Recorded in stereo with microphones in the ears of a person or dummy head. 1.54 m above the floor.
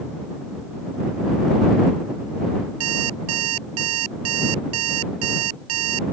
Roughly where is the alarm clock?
Right.